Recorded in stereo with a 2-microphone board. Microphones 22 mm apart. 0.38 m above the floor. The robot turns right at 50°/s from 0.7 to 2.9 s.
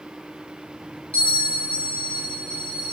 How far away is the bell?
About 2.0 m.